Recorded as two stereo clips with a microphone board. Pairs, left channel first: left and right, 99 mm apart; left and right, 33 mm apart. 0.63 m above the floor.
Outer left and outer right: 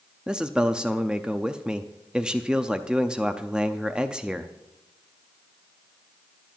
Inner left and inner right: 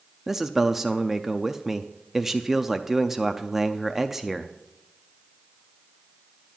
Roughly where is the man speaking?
Centre.